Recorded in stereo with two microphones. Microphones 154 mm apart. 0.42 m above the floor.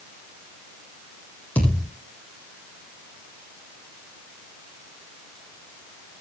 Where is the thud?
10° left (ahead or behind), 8.5 m.